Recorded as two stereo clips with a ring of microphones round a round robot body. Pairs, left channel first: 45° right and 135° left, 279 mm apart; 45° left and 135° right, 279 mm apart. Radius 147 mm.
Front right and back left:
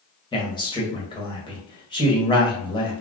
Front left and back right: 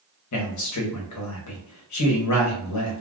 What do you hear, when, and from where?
0.3 s a man speaking: 30° left, 1.1 m